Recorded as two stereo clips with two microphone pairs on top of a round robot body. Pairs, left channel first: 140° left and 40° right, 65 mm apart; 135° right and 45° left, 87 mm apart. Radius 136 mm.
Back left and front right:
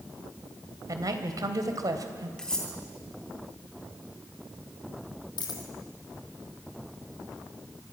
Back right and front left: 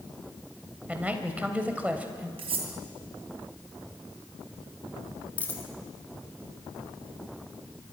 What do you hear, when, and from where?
0.9 s a man speaking: 35° right, 3 m
2.4 s cutlery clinking: 60° left, 3 m
5.4 s a dropped coin: 150° left, 2.5 m